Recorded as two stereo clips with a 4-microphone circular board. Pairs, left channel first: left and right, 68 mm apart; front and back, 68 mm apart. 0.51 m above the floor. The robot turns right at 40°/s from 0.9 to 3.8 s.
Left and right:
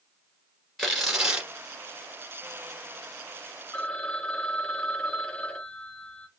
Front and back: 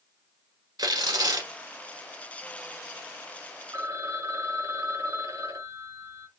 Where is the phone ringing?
155° left, 0.9 m; by 6.3 s 160° left, 0.9 m.